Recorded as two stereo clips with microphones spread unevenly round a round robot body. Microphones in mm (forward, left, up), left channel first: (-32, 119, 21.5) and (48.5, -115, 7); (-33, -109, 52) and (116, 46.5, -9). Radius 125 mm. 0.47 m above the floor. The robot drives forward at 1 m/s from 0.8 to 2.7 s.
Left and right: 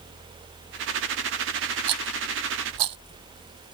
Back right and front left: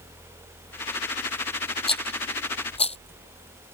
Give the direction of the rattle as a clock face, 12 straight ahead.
2 o'clock.